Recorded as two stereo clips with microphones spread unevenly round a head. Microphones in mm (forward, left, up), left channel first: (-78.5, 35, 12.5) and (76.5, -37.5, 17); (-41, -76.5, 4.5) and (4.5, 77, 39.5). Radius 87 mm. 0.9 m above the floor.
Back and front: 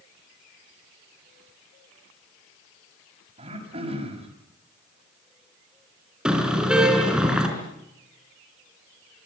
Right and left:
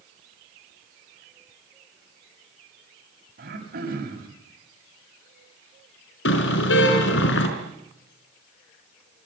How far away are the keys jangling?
I don't hear keys jangling.